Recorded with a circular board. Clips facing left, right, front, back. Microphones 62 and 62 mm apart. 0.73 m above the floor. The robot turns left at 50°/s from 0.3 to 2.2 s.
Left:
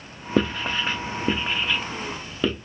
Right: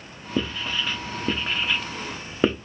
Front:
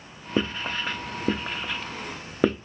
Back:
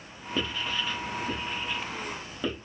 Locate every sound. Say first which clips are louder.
0.4 s writing: left 4 dB, front 4 dB; 65° left, 0.6 m; by 2.5 s 30° right, 0.6 m